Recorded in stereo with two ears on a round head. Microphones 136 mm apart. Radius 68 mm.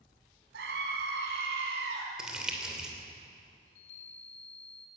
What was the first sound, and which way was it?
A scream, 80° right.